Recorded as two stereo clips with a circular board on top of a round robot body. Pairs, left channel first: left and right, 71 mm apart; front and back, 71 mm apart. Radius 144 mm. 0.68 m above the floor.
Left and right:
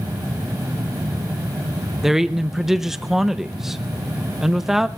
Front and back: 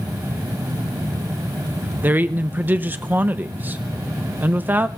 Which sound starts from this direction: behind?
A man speaking, at 2.0 s.